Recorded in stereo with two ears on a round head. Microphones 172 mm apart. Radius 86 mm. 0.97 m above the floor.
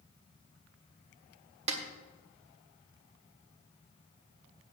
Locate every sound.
1.7 s a snare drum: 35° right (ahead or behind), 1.4 m